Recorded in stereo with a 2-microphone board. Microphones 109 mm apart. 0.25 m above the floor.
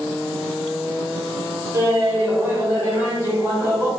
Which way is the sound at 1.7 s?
20° right (ahead or behind).